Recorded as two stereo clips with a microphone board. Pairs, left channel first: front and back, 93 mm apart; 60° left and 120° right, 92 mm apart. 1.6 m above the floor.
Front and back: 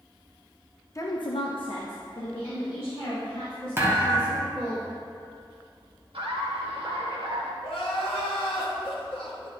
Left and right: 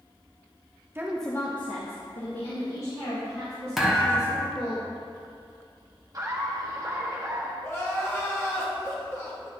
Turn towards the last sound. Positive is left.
turn(degrees=-5)